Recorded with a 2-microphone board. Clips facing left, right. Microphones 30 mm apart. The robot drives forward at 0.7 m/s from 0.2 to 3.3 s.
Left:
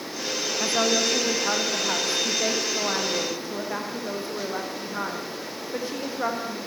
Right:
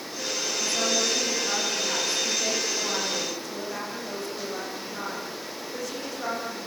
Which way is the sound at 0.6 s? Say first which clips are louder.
Left 4 dB; 40° left (ahead or behind).